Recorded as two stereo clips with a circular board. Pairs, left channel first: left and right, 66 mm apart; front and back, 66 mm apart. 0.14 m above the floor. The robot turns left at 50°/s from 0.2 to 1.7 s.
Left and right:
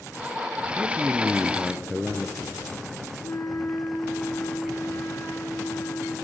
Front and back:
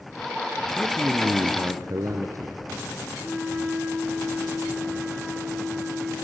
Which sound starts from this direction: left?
A flute, at 3.2 s.